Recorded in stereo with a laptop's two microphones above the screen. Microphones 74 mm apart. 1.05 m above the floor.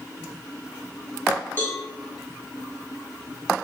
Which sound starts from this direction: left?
A cowbell, at 1.6 s.